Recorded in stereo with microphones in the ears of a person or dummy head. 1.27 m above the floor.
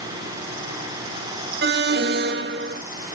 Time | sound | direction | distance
1.6 | an alarm | 45° right (ahead or behind) | 0.8 m